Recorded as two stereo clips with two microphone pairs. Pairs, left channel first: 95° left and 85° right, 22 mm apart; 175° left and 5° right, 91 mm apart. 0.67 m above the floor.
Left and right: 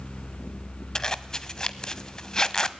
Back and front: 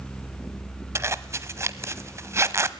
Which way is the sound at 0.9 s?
40° left.